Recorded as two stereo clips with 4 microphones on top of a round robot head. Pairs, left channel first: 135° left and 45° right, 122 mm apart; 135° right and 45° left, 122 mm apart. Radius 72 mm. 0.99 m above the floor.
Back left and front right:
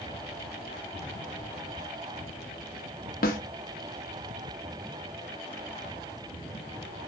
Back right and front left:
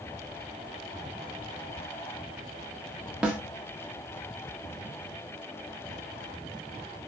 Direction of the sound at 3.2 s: 125° left.